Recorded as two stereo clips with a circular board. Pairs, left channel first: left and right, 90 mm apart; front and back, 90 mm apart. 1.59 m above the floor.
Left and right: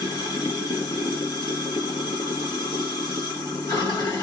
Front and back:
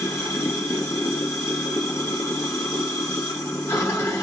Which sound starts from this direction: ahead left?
Running water, at 0.0 s.